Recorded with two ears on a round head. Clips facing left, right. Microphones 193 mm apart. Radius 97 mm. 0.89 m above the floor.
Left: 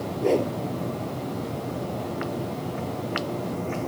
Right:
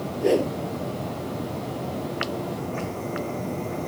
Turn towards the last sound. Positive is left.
turn(degrees=-10)  # may be behind; listen again after turning